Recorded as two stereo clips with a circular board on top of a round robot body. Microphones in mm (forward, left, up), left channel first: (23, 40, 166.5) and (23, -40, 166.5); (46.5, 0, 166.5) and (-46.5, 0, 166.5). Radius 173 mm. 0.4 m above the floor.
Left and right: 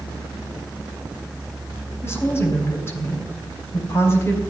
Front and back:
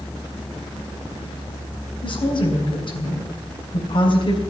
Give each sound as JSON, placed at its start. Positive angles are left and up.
{"t": 2.0, "sound": "a woman speaking", "azimuth_deg": 30, "distance_m": 5.0}